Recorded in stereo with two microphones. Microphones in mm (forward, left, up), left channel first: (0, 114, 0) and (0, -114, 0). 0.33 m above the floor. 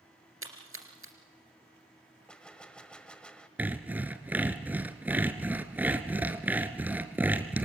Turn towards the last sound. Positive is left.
turn(degrees=-5)  # may be behind; listen again after turning